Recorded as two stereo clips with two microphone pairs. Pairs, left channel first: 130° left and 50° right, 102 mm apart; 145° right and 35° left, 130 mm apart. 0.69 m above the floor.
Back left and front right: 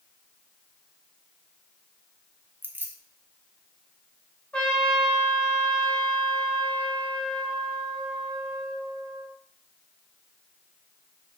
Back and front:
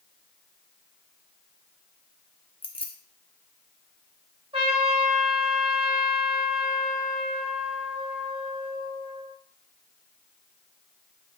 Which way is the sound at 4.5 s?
55° left.